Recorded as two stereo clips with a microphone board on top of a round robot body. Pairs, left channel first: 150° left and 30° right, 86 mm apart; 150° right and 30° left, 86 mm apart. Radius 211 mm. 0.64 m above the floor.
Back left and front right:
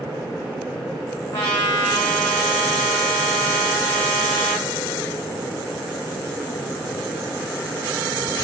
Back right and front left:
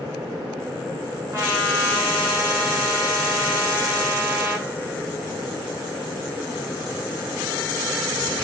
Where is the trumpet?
95° left, 0.6 m.